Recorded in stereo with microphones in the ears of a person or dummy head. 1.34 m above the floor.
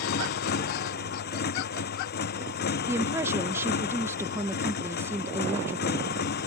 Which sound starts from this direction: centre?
A woman speaking, at 2.9 s.